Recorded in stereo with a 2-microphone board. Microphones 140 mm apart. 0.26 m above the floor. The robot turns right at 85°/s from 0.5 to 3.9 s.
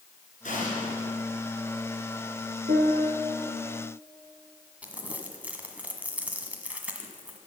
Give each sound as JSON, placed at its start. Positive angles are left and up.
{"t": 0.4, "sound": "an explosion", "azimuth_deg": 75, "distance_m": 3.5}
{"t": 2.7, "sound": "a piano", "azimuth_deg": -100, "distance_m": 1.7}
{"t": 4.8, "sound": "crumpling", "side_deg": -10, "distance_m": 1.4}